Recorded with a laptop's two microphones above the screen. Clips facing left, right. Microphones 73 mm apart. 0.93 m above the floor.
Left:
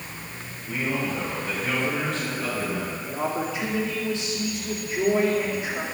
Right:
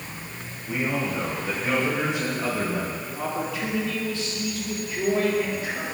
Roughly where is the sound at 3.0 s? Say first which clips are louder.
Left 2 dB; left.